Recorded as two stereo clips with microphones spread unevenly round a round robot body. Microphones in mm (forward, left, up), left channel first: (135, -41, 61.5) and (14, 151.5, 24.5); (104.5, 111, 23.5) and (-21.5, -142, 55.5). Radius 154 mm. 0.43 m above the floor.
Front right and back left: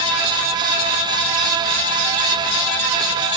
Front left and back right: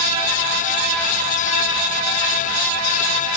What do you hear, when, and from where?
Only background noise.